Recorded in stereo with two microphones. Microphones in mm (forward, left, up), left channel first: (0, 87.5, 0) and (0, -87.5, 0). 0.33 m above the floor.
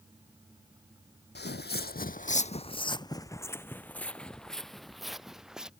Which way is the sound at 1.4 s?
65° left (ahead or behind).